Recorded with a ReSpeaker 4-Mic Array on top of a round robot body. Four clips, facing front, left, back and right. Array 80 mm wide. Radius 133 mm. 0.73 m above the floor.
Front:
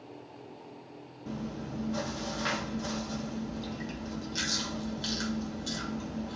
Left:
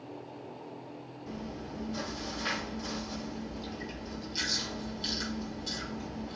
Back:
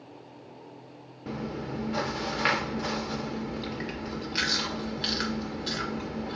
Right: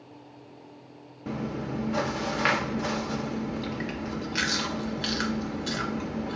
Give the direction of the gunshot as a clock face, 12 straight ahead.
No gunshot in this recording.